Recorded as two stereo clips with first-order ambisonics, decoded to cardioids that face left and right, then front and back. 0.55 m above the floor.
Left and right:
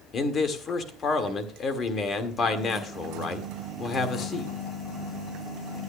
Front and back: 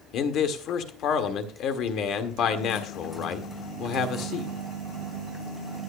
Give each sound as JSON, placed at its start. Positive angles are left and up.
{"t": 0.1, "sound": "a man speaking", "azimuth_deg": 35, "distance_m": 1.6}